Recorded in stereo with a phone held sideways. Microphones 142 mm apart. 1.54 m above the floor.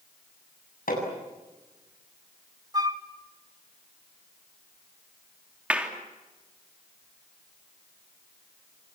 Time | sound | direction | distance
0.9 | hammering | 85° left | 8 m
2.7 | a flute | 25° right (ahead or behind) | 1.1 m
5.7 | a clap | 10° right (ahead or behind) | 3.5 m